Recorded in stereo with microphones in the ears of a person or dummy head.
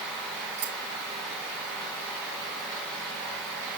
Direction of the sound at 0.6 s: 60° right (ahead or behind).